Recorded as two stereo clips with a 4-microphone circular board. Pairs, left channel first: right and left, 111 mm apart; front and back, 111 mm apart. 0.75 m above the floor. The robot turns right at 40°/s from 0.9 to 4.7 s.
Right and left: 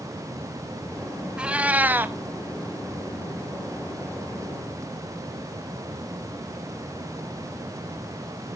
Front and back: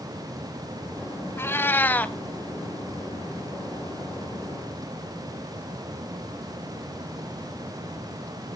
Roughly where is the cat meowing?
Ahead left.